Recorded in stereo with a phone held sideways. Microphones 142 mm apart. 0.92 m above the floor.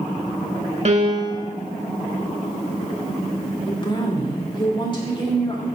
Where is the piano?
50° right (ahead or behind), 1.4 m.